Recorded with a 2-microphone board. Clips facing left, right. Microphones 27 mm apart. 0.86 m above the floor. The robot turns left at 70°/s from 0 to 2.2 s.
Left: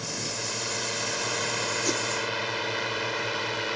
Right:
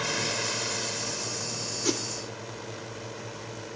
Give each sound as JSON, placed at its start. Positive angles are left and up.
{"t": 0.0, "sound": "a drone", "side_deg": -40}
{"t": 1.9, "sound": "a whoosh", "side_deg": -10}